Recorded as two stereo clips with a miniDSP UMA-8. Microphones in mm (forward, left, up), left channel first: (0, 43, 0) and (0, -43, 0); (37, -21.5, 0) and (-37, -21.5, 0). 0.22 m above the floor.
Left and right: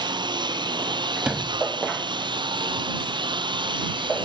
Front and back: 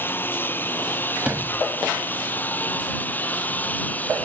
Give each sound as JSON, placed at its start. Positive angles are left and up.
{"t": 0.0, "sound": "a lawn mower", "azimuth_deg": -65}
{"t": 1.2, "sound": "a sliding door", "azimuth_deg": -145}